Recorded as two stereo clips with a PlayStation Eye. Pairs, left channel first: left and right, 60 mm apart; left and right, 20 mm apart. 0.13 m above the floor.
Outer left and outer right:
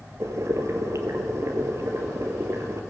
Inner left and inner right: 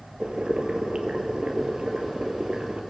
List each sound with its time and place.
0.2 s boiling: 60° right (ahead or behind), 2.0 m